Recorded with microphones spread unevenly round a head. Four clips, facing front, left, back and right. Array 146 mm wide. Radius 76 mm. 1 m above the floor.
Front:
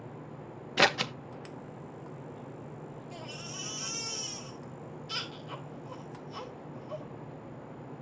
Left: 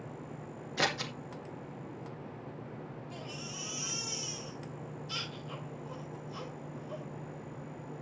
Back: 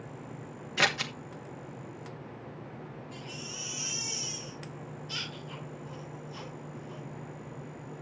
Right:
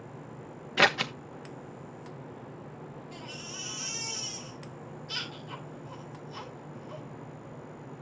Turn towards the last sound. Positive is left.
turn(degrees=25)